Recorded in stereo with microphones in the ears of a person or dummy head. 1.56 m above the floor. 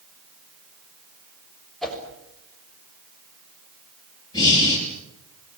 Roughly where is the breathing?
Centre.